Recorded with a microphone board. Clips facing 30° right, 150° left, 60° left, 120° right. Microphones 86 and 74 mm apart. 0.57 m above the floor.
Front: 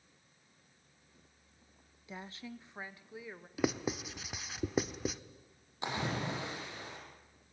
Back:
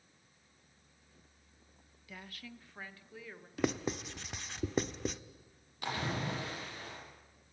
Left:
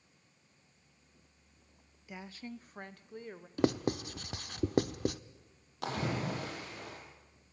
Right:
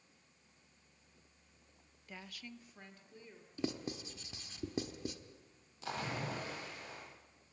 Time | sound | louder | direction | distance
2.1 | a woman speaking | front 4 dB, left 6 dB | 10° right | 0.6 m
3.6 | writing | even, left 10 dB | 55° left | 0.9 m
5.8 | a splash | front 1 dB, left 5 dB | 40° left | 7 m